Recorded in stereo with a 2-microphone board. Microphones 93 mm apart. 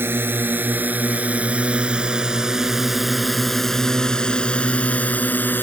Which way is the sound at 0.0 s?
25° right (ahead or behind).